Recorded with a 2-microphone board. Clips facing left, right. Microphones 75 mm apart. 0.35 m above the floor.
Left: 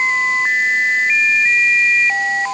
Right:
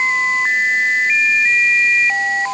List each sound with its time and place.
Only background noise.